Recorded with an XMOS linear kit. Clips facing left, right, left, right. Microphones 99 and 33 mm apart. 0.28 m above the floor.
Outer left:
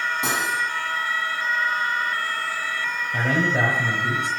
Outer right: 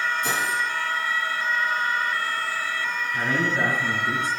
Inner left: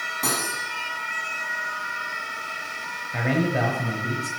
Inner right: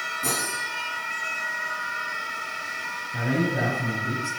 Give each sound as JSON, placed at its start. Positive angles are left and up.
{"t": 0.2, "sound": "cutlery clinking", "side_deg": 80, "distance_m": 8.5}
{"t": 3.1, "sound": "a man speaking", "side_deg": 70, "distance_m": 5.0}